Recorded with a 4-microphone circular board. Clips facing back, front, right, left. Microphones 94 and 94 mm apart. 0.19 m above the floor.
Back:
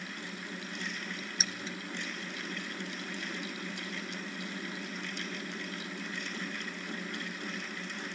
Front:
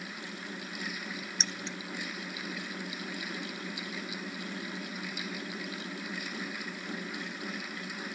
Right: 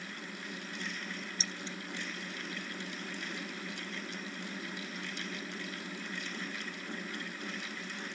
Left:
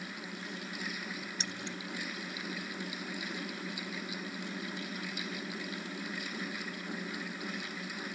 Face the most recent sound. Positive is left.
turn(degrees=100)